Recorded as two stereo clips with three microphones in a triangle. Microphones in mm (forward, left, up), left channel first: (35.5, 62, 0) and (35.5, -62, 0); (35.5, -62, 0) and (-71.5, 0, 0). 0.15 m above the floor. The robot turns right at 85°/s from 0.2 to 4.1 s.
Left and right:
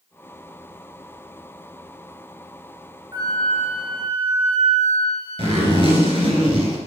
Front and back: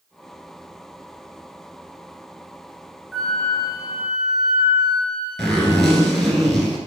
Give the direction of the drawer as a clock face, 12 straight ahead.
No drawer in this recording.